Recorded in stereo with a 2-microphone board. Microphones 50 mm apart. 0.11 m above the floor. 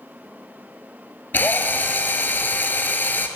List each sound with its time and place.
1.3 s a drill: 45° left (ahead or behind), 0.7 m